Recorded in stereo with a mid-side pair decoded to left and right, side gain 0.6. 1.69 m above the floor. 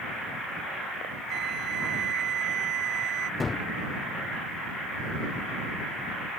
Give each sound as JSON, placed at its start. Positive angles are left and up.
{"t": 1.3, "sound": "a flute", "azimuth_deg": -55}
{"t": 3.4, "sound": "a gunshot", "azimuth_deg": 25}